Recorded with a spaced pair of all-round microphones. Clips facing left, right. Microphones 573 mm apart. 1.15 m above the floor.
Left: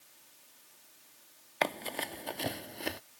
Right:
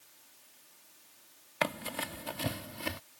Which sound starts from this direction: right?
Running footsteps, at 1.6 s.